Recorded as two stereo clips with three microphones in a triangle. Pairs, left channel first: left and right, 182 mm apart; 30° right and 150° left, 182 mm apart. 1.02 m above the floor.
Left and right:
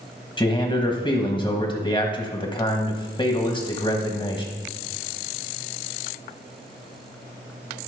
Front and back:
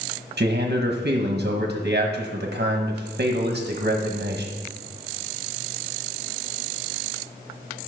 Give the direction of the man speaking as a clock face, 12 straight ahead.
7 o'clock.